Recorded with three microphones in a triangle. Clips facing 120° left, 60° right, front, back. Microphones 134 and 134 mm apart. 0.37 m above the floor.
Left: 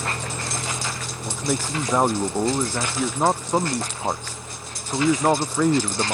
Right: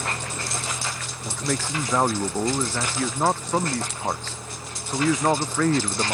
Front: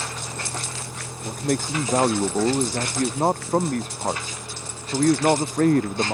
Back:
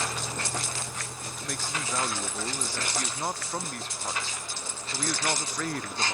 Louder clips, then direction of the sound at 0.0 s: Left 2 dB, even; 85° left.